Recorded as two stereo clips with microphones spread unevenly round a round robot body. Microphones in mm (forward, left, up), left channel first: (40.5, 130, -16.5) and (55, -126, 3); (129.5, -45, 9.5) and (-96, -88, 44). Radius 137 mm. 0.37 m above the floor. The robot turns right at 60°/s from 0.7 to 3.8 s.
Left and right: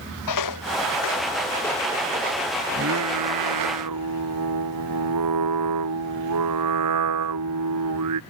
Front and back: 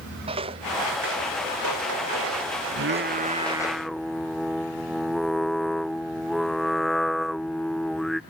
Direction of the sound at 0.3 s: 120° left.